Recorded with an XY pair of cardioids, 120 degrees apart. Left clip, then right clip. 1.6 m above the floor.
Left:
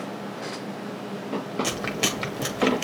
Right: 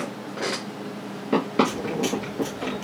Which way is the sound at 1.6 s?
70° left.